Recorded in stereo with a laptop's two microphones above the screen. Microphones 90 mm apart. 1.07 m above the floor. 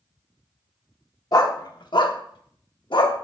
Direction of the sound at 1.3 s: 45° left (ahead or behind).